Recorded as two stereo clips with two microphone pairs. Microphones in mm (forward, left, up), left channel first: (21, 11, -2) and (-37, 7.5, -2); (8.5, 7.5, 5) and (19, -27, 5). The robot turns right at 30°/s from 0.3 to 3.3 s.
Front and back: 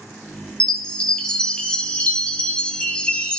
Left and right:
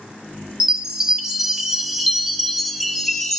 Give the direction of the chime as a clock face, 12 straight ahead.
2 o'clock.